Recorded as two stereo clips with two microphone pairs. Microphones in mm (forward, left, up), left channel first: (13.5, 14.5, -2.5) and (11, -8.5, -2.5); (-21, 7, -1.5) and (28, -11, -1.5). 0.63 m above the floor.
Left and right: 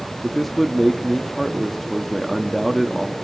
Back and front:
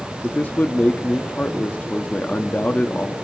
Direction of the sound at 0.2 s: 165° left.